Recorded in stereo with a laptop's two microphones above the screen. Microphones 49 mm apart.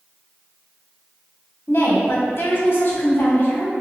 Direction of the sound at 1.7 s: 55° left (ahead or behind).